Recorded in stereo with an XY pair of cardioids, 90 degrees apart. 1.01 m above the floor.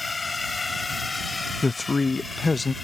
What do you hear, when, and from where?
0.0 s a drone: 30° left; by 2.8 s 35° left
1.6 s a man speaking: 30° left